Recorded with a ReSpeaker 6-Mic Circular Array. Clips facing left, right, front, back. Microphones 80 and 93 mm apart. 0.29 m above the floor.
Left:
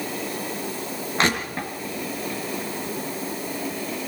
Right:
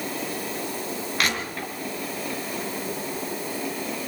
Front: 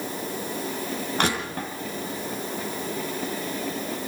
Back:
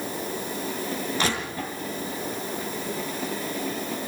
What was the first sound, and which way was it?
Crushing, 30° left.